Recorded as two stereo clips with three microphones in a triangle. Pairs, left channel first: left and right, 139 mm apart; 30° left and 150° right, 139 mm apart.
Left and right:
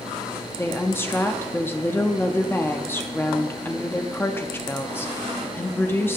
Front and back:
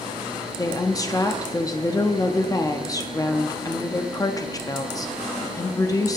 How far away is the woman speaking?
About 0.6 m.